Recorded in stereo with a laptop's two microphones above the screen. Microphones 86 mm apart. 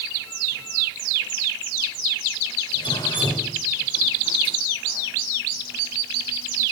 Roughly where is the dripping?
Left.